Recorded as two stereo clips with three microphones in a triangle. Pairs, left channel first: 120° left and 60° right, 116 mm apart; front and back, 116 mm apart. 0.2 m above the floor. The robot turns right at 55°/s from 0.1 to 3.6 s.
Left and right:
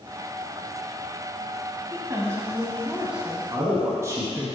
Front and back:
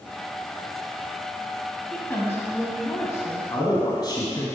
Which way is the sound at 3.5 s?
20° right.